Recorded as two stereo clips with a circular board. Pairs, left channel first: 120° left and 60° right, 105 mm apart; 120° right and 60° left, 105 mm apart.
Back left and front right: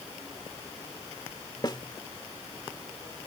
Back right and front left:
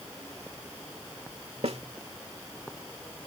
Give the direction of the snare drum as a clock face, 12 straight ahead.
10 o'clock.